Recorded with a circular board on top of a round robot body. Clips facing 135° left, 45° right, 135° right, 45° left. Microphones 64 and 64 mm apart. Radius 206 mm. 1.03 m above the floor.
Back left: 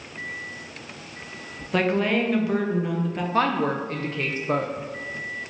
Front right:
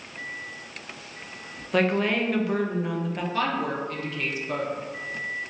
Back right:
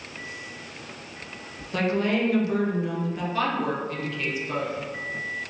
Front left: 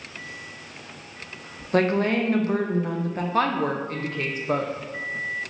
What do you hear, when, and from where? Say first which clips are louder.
1.7 s a woman speaking: back left 1 dB, front left 3 dB; 45° left, 0.8 m
3.3 s a woman speaking: back left 5 dB, front left 3 dB; 85° left, 0.5 m